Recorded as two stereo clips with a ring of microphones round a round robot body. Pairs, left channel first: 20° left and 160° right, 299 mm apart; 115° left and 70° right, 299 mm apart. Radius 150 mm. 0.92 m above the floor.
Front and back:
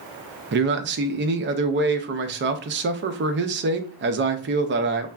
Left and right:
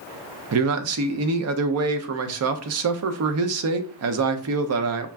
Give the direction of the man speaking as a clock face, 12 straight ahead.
3 o'clock.